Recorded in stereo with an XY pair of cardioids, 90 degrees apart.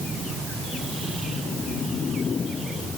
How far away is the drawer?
No drawer in this recording.